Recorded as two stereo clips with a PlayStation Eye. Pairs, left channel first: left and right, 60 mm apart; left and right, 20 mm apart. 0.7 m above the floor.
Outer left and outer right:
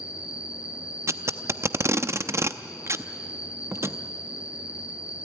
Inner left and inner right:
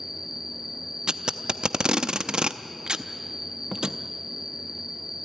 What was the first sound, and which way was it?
An insect, 15° right (ahead or behind).